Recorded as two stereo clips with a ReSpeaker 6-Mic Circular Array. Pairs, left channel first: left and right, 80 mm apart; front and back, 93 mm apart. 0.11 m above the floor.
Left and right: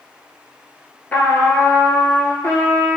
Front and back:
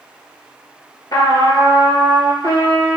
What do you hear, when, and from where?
1.1 s a trumpet: 30° left, 0.7 m